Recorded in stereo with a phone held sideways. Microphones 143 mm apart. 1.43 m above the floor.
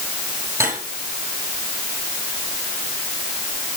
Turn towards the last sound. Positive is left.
turn(degrees=-15)  # may be behind; listen again after turning